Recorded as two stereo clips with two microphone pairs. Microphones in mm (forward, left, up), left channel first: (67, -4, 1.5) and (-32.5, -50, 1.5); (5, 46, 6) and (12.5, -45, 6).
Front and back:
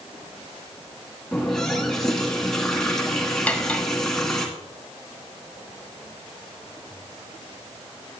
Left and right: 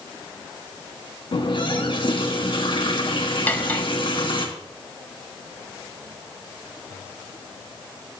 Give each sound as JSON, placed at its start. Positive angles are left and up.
{"t": 1.3, "sound": "a running tap", "azimuth_deg": 110, "distance_m": 1.7}
{"t": 3.5, "sound": "cutlery clinking", "azimuth_deg": 70, "distance_m": 0.8}